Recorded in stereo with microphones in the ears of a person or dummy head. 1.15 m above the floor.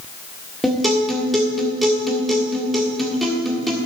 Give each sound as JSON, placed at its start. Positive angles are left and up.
{"t": 0.6, "sound": "a guitar", "side_deg": 0, "distance_m": 1.6}